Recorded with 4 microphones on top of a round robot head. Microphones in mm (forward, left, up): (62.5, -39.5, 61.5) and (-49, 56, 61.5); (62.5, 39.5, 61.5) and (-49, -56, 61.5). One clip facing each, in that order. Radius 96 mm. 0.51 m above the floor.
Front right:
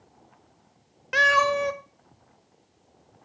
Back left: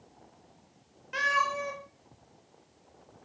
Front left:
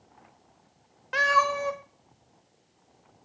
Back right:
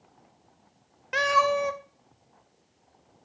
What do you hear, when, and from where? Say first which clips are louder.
1.1 s a cat meowing: front right 9 dB, back right 2 dB; 70° right, 0.5 m